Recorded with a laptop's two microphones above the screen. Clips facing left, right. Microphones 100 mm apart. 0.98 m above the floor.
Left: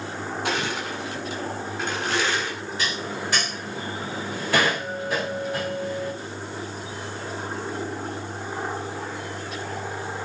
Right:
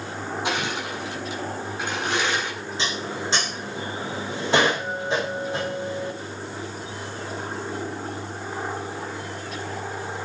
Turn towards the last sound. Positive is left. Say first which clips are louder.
# right 1 dB
turn(degrees=-25)  # may be behind; listen again after turning